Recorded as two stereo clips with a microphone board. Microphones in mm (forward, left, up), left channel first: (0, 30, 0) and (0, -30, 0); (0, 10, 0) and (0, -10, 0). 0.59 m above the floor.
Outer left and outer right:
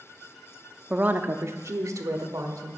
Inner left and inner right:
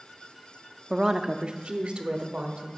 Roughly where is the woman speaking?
Centre.